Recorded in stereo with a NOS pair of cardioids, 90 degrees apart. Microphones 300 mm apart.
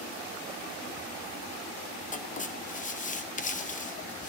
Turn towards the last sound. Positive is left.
turn(degrees=25)